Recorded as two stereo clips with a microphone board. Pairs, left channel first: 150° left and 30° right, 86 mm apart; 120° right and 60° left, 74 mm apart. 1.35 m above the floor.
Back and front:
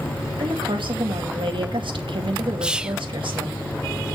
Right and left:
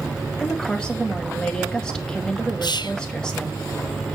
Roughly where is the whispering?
Right.